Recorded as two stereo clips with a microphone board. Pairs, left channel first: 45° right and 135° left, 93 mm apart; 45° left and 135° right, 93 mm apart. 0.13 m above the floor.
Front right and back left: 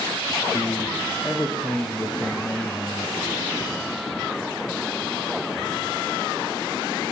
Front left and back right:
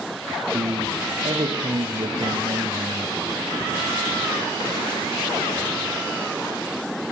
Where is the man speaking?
120° right, 4.5 m.